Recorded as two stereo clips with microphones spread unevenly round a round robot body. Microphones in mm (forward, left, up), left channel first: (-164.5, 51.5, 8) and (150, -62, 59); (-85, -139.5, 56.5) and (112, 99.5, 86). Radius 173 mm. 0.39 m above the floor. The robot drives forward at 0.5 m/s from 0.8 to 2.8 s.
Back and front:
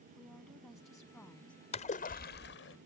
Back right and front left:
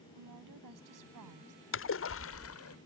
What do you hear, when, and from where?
0.2 s a woman speaking: 75° left; by 1.6 s 80° left
1.7 s a splash: 145° right; by 2.8 s 160° right